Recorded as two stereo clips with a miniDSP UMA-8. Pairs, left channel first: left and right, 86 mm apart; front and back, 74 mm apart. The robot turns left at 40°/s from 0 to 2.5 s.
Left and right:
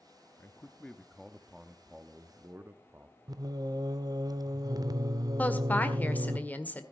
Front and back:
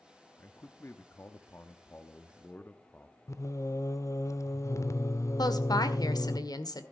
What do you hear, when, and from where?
0.4 s a man speaking: 35° left, 0.8 m; by 3.2 s 50° right, 0.8 m
3.3 s singing: 45° right, 0.6 m
5.4 s a woman speaking: 20° left, 1.6 m